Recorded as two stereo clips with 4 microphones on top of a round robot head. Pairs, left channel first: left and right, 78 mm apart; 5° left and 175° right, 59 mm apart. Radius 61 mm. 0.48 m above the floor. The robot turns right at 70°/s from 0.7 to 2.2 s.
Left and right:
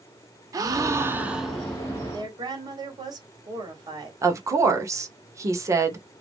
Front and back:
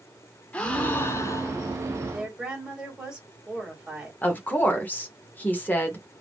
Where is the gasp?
60° right, 0.9 m; by 1.8 s 15° left, 0.9 m.